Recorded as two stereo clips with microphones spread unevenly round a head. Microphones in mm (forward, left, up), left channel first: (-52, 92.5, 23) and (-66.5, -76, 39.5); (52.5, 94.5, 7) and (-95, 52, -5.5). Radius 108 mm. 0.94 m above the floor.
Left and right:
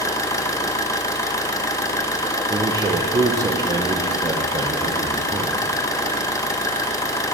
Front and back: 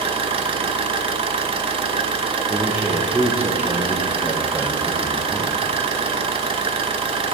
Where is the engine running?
150° left, 0.7 m.